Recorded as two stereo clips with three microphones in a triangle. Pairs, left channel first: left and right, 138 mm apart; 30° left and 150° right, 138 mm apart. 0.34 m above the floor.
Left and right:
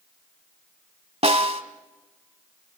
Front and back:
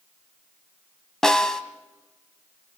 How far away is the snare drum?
About 1.1 m.